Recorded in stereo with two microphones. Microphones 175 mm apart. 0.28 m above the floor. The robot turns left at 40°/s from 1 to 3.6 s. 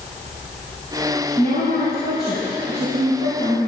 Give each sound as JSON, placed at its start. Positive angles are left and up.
{"t": 1.4, "sound": "a woman speaking", "azimuth_deg": 120, "distance_m": 3.5}